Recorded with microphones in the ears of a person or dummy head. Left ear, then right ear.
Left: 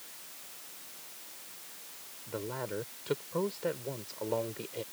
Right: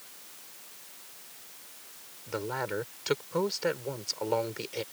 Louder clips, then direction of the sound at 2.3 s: Right 5 dB; 50° right (ahead or behind).